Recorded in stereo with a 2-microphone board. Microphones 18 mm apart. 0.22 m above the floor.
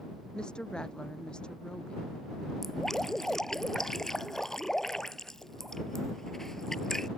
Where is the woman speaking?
65° left (ahead or behind).